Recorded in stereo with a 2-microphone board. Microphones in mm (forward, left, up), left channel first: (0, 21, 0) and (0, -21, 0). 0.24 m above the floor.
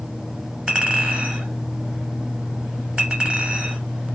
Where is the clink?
25° right (ahead or behind), 1.1 m.